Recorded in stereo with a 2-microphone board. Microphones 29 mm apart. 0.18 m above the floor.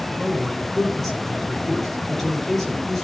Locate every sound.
0.2 s a man speaking: 10° left (ahead or behind), 5 m